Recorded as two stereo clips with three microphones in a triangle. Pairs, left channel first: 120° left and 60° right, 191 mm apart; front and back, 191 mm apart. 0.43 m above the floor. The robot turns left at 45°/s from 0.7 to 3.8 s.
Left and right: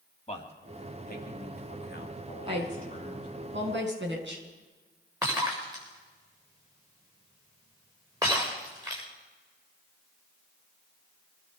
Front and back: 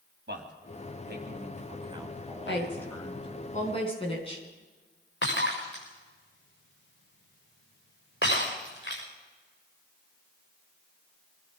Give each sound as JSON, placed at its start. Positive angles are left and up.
{"t": 0.3, "sound": "a man speaking", "azimuth_deg": 175, "distance_m": 3.0}
{"t": 2.5, "sound": "a woman speaking", "azimuth_deg": 0, "distance_m": 4.5}
{"t": 5.2, "sound": "breaking glass", "azimuth_deg": 15, "distance_m": 7.0}